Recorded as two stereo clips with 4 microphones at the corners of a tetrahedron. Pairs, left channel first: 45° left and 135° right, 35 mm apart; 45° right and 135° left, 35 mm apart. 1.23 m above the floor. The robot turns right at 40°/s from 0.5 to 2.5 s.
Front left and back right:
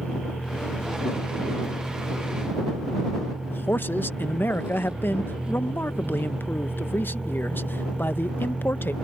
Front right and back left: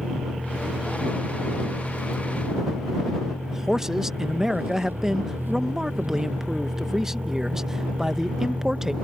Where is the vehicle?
80° left; by 9.0 s 165° left.